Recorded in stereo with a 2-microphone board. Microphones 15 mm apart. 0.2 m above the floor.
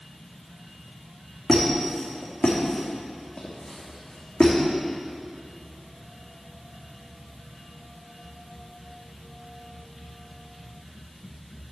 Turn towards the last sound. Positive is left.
turn(degrees=85)